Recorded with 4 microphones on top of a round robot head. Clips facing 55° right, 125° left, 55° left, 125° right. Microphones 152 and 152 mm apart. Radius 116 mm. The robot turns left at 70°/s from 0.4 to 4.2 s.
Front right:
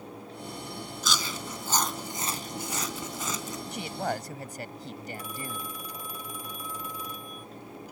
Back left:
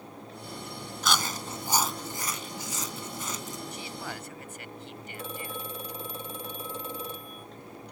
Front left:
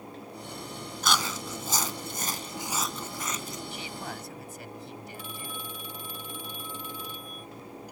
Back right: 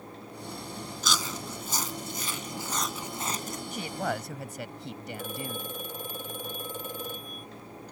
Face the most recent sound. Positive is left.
turn(degrees=-170)